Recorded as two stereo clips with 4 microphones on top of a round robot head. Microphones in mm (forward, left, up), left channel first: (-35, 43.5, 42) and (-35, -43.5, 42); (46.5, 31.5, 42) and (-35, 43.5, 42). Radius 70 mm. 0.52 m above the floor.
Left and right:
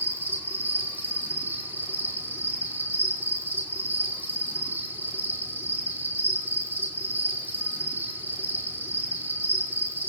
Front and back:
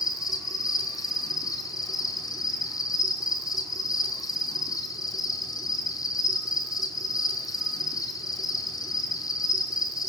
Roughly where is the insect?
Ahead right.